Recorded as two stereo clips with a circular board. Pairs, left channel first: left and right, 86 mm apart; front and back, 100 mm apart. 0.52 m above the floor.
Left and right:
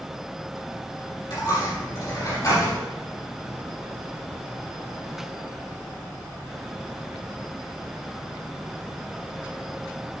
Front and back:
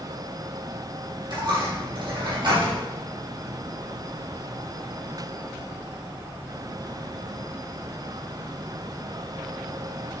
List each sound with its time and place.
1.3 s a dropped coin: 135° left, 4.5 m